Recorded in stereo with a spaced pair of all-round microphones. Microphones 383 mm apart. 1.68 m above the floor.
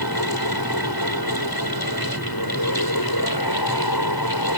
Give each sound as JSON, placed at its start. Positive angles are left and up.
{"t": 0.0, "sound": "a fan", "side_deg": 70}